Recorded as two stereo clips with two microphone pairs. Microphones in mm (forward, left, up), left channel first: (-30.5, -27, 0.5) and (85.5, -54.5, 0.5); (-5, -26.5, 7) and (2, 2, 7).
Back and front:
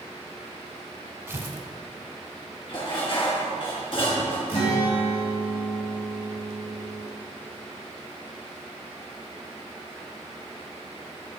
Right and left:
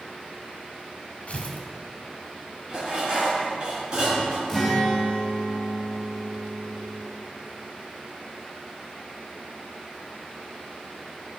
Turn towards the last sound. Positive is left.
turn(degrees=160)